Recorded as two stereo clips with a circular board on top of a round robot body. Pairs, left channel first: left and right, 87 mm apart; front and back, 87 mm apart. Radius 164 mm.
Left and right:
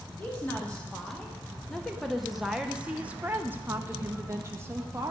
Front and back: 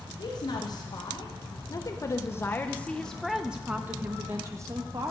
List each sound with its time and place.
0.2 s a woman speaking: 20° left, 1.8 m; by 5.1 s 140° right, 1.5 m